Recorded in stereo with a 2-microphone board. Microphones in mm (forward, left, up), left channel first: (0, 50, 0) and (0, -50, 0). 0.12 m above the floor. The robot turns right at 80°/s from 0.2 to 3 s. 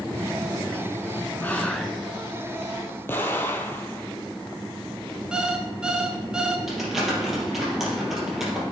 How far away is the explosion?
About 1.2 m.